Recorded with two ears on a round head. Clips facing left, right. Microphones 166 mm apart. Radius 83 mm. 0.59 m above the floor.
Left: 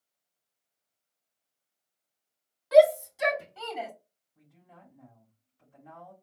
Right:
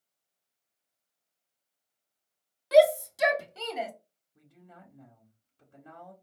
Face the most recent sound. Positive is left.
turn(degrees=-65)  # may be behind; listen again after turning